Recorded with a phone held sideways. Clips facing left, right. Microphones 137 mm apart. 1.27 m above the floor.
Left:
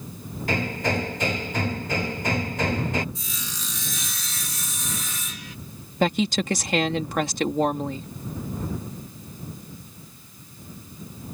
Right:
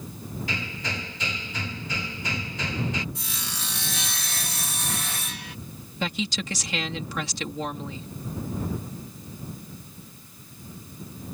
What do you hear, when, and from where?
0.5 s hammering: 55° left (ahead or behind)
3.1 s sawing: 70° right (ahead or behind)
6.0 s a woman speaking: 55° left (ahead or behind)